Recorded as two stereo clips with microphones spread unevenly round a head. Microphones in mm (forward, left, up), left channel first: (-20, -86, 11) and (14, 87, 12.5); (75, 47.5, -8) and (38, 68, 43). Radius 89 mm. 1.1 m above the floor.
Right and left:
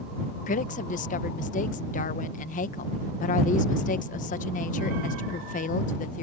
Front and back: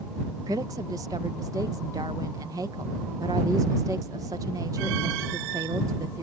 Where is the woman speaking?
140° right.